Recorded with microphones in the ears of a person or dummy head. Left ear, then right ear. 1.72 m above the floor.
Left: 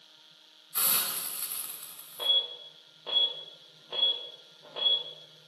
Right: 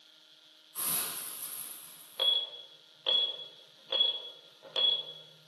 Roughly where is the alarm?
Right.